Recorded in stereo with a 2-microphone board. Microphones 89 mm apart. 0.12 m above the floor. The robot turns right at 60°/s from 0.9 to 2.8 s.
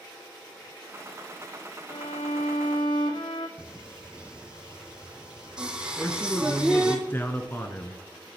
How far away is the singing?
About 1.5 m.